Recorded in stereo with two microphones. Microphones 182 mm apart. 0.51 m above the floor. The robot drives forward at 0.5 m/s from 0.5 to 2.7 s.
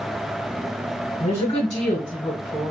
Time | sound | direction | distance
1.2 | a woman speaking | 25° left (ahead or behind) | 2.5 m